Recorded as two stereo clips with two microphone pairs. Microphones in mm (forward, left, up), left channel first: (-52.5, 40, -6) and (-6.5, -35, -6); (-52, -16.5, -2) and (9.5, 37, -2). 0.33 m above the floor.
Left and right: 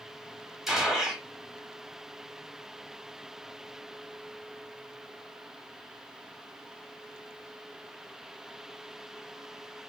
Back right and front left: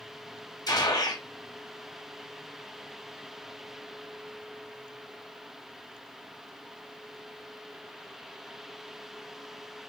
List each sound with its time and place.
0.7 s a gunshot: 145° right, 1.0 m